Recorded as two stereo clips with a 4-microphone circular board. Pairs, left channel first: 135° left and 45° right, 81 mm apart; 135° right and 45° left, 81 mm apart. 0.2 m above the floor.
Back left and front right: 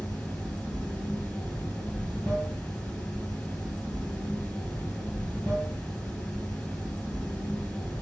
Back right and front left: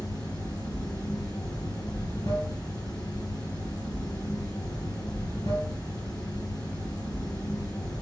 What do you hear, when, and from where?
0.0 s running water: 145° right, 2.5 m